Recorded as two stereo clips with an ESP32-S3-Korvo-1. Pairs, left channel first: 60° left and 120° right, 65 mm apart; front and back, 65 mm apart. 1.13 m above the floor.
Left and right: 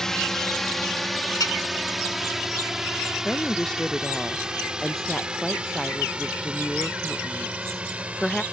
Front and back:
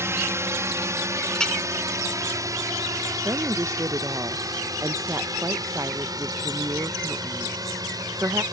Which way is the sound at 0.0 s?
140° left.